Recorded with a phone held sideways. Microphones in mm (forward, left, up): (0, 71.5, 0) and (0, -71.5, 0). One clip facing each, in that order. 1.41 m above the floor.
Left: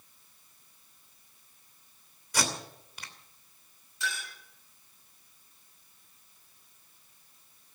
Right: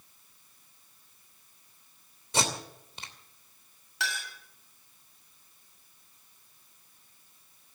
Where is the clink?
80° right, 7.5 m.